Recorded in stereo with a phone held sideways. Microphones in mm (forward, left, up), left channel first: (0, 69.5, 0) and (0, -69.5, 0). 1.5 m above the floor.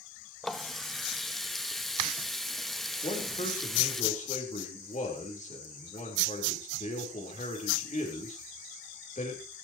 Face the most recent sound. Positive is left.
turn(degrees=55)  # may be behind; listen again after turning